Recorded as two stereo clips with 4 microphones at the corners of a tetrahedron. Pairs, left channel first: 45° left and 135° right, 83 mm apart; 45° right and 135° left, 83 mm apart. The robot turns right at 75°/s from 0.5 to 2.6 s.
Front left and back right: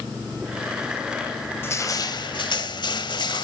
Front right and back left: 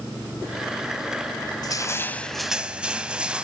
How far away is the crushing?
About 0.8 m.